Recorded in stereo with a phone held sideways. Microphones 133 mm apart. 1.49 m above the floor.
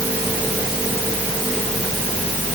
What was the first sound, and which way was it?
Only background noise.